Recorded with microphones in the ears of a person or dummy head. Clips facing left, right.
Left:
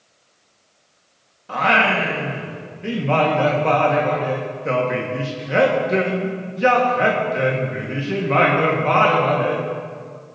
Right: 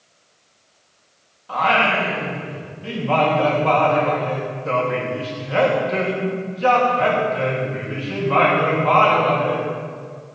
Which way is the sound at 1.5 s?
30° left (ahead or behind).